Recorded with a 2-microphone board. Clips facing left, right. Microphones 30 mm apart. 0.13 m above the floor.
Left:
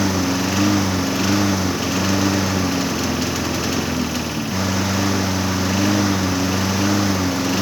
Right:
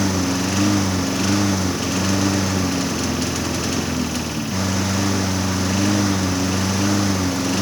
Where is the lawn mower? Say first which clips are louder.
Left 1 dB; 5° left (ahead or behind).